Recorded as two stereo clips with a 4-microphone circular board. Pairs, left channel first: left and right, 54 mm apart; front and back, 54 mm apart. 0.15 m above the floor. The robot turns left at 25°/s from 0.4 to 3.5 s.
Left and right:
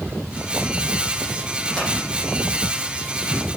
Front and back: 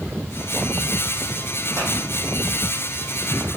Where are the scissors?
165° left, 7.5 m.